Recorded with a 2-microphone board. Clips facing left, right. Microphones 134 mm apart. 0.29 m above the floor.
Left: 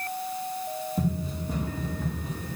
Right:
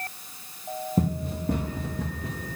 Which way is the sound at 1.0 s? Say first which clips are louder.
Right 5 dB; 55° right (ahead or behind).